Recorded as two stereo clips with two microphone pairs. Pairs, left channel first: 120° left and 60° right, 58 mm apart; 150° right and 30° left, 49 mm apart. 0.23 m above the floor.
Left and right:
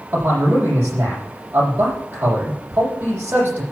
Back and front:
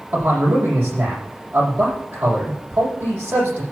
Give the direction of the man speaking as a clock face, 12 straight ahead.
12 o'clock.